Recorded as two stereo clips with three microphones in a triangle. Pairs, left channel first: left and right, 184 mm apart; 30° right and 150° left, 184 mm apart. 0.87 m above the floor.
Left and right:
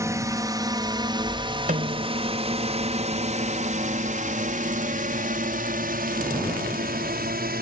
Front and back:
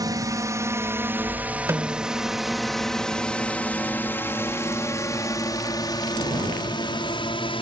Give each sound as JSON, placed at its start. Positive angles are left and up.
{"t": 0.0, "sound": "a drone", "azimuth_deg": -155}
{"t": 1.7, "sound": "a snare drum", "azimuth_deg": -135}